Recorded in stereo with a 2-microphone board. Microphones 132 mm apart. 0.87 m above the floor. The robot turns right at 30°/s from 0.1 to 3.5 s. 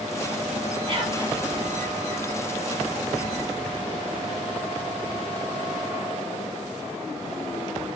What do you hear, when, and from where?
0.9 s whispering: 40° right (ahead or behind), 0.8 m; by 1.4 s 35° right (ahead or behind), 0.8 m